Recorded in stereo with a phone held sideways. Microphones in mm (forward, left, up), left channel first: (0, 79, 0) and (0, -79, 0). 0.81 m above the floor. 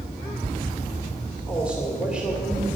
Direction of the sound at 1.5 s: 5° right (ahead or behind).